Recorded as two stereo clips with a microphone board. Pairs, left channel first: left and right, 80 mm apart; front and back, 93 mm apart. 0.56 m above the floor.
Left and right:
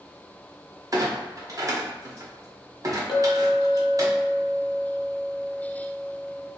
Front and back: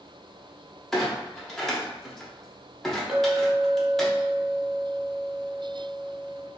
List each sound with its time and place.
0.9 s a clunk: 85° right, 0.8 m
3.1 s a clink: 95° left, 1.5 m